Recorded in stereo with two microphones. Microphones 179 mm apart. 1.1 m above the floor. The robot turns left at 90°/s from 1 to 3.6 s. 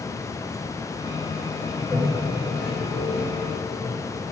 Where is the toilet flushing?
15° right (ahead or behind), 4 m; by 4.0 s 30° left (ahead or behind), 4 m.